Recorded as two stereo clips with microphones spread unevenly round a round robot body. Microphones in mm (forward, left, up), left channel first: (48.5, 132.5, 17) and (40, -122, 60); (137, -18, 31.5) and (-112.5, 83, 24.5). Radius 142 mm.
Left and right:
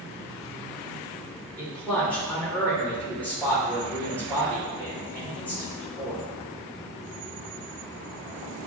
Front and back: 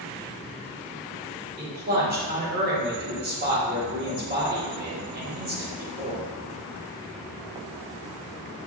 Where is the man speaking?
155° left, 1.2 m.